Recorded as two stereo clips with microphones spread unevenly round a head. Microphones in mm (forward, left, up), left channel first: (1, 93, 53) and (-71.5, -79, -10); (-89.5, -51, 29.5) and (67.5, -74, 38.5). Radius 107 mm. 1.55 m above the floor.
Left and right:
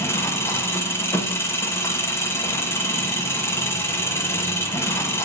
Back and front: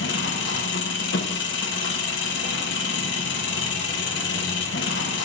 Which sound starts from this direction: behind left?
An engine running, at 0.0 s.